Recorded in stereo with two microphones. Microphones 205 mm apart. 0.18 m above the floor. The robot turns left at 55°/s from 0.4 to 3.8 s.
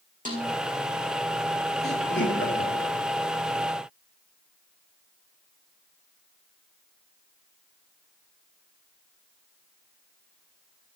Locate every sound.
0.2 s a snare drum: 40° right (ahead or behind), 4 m; by 0.5 s 35° right (ahead or behind), 4 m
1.8 s laughter: 55° left (ahead or behind), 3 m